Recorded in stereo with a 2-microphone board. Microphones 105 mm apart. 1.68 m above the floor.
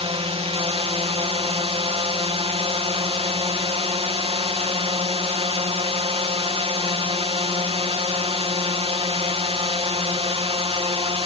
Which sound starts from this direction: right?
A drone, at 0.0 s.